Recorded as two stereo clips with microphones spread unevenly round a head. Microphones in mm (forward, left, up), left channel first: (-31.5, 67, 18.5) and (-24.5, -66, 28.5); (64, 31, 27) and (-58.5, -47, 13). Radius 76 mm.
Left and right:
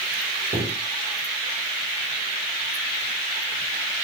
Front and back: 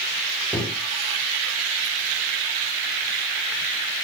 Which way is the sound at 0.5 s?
60° right.